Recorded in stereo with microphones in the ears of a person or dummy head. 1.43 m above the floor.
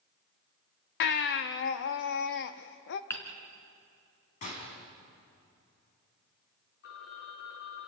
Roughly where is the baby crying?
Left.